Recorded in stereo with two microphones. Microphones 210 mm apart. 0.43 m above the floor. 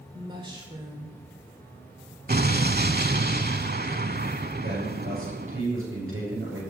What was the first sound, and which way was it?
A woman speaking, 25° right (ahead or behind).